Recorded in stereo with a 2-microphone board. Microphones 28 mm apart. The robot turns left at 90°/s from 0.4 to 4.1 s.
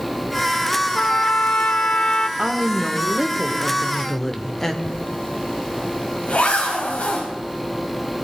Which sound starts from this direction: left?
A zipper, at 4.8 s.